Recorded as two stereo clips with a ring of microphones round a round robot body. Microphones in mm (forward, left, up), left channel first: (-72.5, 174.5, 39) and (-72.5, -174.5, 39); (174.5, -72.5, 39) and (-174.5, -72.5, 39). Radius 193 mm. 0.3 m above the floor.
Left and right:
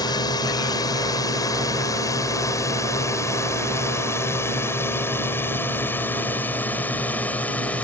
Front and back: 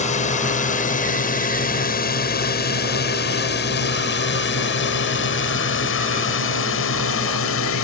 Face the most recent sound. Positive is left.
turn(degrees=5)